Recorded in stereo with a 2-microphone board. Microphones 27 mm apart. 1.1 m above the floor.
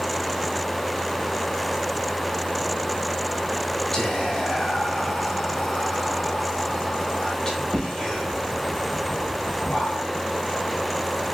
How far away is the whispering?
About 1.1 m.